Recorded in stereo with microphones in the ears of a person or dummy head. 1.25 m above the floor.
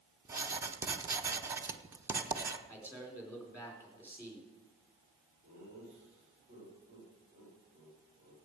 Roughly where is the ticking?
No ticking in this recording.